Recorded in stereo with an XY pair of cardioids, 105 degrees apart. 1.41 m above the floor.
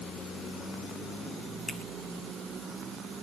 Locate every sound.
1.7 s a finger snap: 30° left, 8 m